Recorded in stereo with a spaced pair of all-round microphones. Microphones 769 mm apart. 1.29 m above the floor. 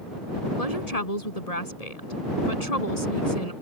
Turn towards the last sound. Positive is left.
turn(degrees=50)  # may be behind; listen again after turning